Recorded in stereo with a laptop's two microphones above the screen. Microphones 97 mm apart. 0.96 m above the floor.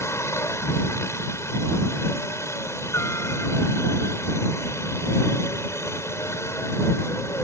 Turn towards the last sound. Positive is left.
turn(degrees=30)  # may be behind; listen again after turning